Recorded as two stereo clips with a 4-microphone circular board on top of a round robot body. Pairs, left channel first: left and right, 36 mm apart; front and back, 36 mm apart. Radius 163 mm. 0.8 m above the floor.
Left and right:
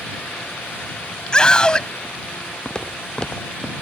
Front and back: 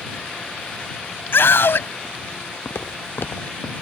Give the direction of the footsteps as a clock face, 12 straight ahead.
11 o'clock.